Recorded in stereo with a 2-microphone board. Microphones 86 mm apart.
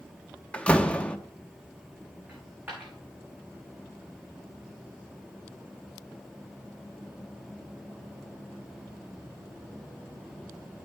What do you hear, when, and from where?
0.5 s a door slam: 15° left (ahead or behind), 0.7 m
2.3 s a dropped coin: 20° right (ahead or behind), 5.5 m